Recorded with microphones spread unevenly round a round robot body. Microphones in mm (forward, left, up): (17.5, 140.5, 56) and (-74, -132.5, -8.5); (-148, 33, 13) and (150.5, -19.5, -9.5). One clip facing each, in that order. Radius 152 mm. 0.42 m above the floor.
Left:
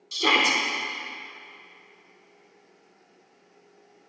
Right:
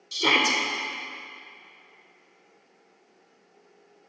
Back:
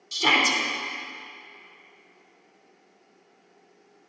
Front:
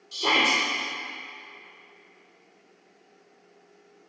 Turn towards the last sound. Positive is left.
turn(degrees=180)